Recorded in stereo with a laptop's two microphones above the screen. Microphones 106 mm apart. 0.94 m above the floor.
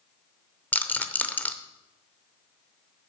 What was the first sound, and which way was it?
A rattle, 15° left (ahead or behind).